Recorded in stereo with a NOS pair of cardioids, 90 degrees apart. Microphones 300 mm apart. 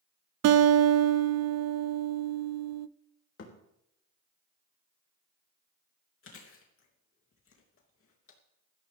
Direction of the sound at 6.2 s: 45° left.